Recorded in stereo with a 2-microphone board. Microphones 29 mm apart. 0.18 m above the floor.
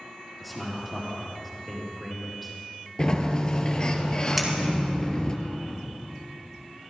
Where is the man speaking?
5° left (ahead or behind), 4 m.